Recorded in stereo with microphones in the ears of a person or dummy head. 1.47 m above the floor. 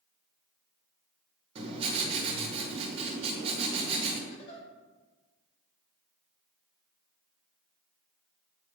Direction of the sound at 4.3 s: 40° left (ahead or behind).